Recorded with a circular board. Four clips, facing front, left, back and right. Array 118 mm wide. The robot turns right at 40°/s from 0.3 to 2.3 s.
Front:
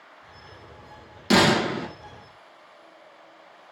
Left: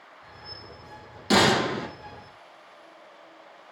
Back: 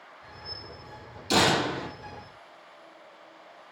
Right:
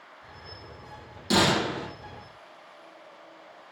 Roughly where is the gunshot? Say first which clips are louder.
Left 3 dB, front 4 dB; ahead.